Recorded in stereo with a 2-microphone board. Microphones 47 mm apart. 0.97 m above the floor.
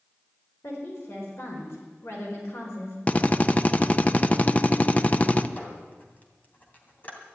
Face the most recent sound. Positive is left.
turn(degrees=40)  # may be behind; listen again after turning